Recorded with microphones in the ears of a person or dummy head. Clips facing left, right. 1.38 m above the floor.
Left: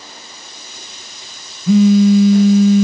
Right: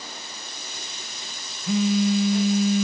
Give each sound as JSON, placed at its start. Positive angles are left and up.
{"t": 1.7, "sound": "a phone buzzing", "side_deg": 45, "distance_m": 0.6}